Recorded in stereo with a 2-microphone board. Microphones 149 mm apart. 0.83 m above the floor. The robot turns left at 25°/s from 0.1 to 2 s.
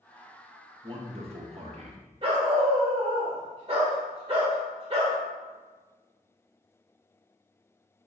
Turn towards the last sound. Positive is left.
turn(degrees=-40)  # may be behind; listen again after turning